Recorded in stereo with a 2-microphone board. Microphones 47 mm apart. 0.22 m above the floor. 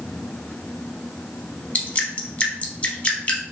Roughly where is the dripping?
Left.